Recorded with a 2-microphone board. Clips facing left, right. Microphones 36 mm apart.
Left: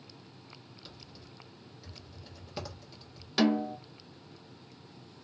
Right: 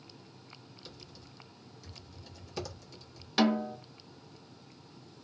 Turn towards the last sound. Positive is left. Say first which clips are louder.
# left 1 dB
turn(degrees=-5)  # may be behind; listen again after turning